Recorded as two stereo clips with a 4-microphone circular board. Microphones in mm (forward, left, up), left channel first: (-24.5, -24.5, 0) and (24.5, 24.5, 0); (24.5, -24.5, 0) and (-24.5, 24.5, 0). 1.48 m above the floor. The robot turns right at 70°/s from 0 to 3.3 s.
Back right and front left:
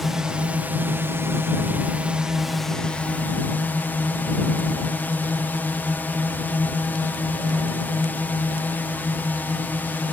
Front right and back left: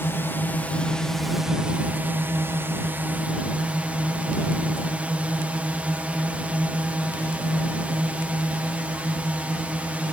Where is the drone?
45° right; by 10.1 s 170° right.